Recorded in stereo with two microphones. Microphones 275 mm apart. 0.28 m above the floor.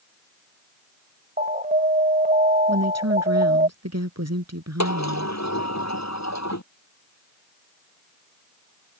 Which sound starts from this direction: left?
A sliding door, at 4.8 s.